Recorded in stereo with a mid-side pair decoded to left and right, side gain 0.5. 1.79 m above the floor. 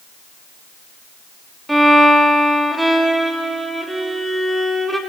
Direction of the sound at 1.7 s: 10° right.